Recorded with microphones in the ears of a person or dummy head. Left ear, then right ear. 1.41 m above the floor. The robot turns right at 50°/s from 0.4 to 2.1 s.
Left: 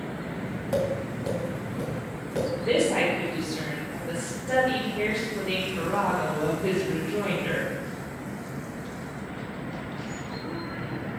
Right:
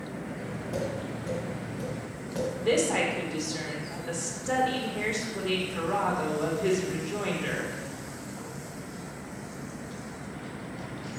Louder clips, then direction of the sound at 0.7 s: Left 7 dB; 65° left (ahead or behind).